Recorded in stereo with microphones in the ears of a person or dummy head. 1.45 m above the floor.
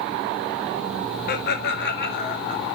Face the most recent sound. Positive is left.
turn(degrees=65)  # may be behind; listen again after turning